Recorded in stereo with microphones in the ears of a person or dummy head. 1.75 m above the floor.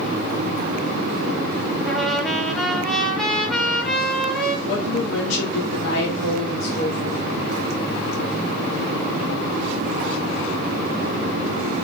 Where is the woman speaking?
70° left (ahead or behind), 2 m.